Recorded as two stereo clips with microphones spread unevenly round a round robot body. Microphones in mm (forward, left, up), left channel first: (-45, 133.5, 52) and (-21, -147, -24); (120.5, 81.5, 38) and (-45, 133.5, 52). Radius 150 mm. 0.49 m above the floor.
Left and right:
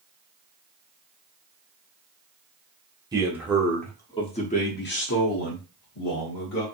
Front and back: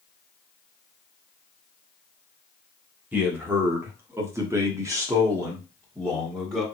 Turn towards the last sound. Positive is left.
turn(degrees=90)